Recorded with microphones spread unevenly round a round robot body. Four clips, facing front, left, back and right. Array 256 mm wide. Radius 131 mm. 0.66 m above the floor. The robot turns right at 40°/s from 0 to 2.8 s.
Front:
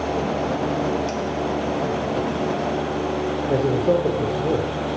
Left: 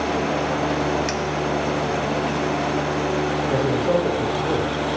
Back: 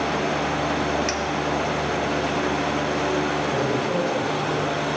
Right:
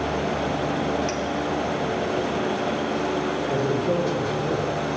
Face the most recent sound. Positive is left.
turn(degrees=5)